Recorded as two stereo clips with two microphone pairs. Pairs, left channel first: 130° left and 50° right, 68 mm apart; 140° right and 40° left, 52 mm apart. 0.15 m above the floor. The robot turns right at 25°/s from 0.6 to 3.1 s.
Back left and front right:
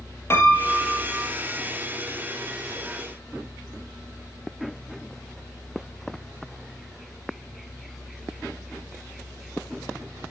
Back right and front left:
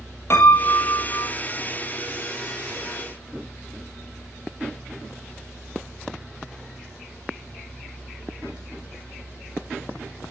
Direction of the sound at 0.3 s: 175° right.